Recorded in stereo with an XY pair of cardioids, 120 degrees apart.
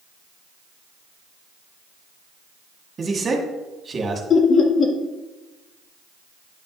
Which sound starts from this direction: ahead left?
Laughter, at 4.3 s.